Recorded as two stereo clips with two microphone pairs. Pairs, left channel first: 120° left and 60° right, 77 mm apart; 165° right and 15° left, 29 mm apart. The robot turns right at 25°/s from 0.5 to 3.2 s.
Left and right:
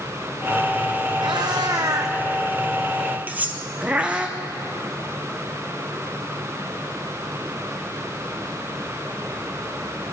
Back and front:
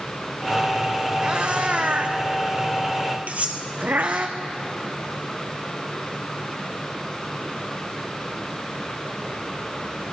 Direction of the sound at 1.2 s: 40° right.